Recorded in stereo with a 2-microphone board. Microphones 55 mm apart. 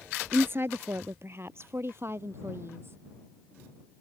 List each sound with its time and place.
0.3 s a woman speaking: 45° right (ahead or behind); by 3.0 s 50° right (ahead or behind)